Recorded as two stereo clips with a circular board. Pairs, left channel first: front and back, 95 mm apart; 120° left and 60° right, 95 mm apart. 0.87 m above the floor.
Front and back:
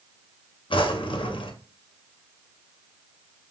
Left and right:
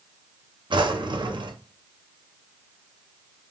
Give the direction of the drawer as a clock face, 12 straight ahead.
1 o'clock.